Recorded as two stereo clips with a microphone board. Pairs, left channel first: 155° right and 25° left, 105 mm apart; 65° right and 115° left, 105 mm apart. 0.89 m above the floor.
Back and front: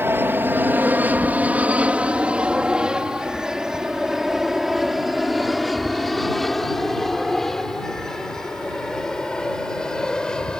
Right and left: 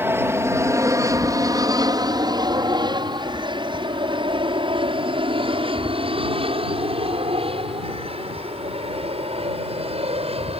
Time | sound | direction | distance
0.0 | an aircraft | 70° left | ?